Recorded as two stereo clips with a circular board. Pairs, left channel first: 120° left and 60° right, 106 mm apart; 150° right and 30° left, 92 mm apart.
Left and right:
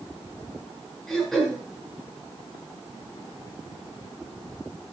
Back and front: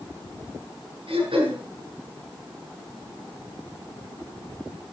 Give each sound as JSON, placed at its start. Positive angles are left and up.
{"t": 1.1, "sound": "throat clearing", "azimuth_deg": 35, "distance_m": 7.5}